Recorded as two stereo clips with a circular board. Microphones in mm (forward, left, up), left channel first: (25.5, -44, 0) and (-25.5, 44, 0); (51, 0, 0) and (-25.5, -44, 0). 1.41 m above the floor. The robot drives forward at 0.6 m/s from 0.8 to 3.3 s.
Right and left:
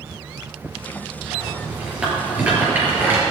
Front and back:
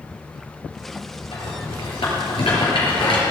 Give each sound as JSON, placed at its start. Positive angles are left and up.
{"t": 1.3, "sound": "a rattle", "azimuth_deg": 40, "distance_m": 5.5}